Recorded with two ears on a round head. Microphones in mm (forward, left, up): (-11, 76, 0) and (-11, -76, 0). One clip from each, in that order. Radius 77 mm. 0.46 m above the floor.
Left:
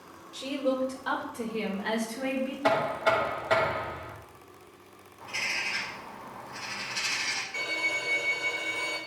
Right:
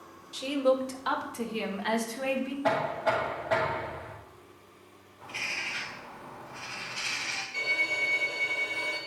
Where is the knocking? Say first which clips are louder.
Left 2 dB; 65° left (ahead or behind), 2 m.